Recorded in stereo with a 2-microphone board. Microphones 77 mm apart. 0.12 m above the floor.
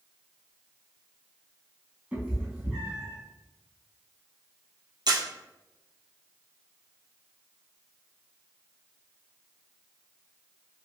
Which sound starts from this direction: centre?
A cat meowing, at 2.1 s.